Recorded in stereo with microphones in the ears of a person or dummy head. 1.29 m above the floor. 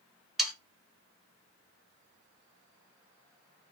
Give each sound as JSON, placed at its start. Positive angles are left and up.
{"t": 0.4, "sound": "sawing", "side_deg": -5, "distance_m": 0.7}